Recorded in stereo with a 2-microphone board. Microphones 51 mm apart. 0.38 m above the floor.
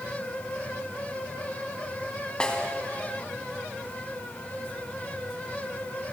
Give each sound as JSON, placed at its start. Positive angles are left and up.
{"t": 2.4, "sound": "a snare drum", "side_deg": 15, "distance_m": 2.5}